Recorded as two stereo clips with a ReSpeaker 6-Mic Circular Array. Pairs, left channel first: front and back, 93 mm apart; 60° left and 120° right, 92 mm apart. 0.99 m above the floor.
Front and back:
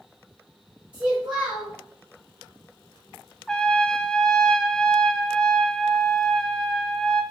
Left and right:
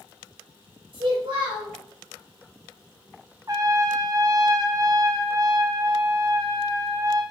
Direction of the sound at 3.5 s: 80° right.